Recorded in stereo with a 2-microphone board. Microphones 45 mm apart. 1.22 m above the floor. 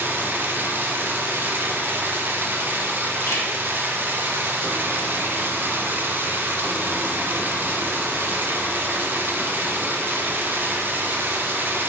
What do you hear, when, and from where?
0.0 s running water: 45° right (ahead or behind), 1.0 m
3.3 s a camera shutter: 75° left (ahead or behind), 2 m